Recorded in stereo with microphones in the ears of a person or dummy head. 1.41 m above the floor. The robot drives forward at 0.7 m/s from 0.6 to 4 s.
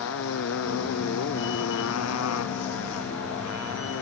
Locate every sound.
0.0 s a motorcycle: 85° left